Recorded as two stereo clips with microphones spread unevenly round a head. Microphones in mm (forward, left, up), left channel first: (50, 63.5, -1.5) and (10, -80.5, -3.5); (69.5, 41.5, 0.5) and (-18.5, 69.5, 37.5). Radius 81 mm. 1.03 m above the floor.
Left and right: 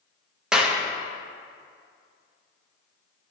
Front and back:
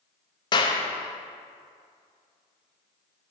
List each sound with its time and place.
0.5 s a clap: 20° right, 0.9 m